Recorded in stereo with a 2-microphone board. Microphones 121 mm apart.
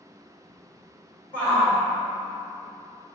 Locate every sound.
1.3 s a shout: 15° left (ahead or behind), 1.2 m